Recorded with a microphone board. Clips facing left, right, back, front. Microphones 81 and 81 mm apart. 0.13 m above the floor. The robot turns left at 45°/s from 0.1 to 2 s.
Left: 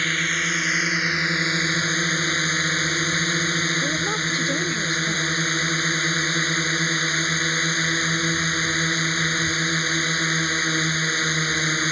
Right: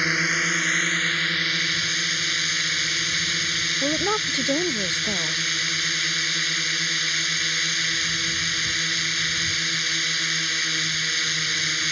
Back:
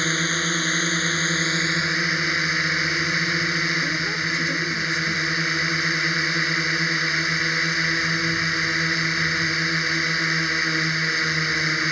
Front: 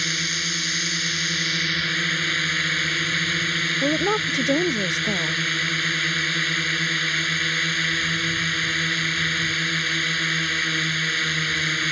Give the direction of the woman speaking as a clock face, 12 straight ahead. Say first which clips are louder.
Right 1 dB, front 4 dB; 1 o'clock.